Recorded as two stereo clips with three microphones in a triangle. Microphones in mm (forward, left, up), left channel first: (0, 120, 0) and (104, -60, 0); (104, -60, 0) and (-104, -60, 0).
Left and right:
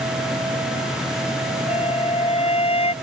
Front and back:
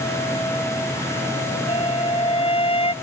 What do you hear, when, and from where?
1.7 s a flute: 60° left